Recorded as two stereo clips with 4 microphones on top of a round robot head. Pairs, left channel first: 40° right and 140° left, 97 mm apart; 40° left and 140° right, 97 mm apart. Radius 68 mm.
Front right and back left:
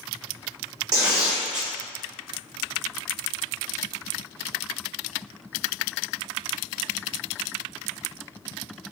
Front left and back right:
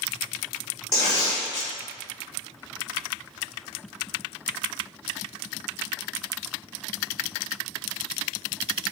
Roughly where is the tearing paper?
Left.